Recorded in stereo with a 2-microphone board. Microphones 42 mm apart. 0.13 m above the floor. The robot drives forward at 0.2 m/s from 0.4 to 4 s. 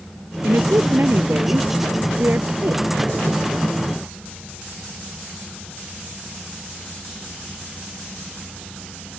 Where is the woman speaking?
65° right (ahead or behind); by 2.8 s 60° right (ahead or behind).